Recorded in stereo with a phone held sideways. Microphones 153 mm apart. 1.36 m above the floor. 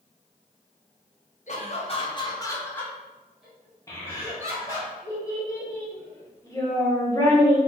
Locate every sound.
1.5 s laughter: 55° left (ahead or behind), 0.9 m; by 4.9 s 20° right (ahead or behind), 1.7 m
3.9 s a child speaking: 20° left (ahead or behind), 1.0 m